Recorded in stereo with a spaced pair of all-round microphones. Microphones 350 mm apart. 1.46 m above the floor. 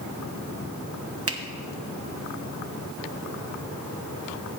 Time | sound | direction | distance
1.3 | a finger snap | 40° right (ahead or behind) | 1.0 m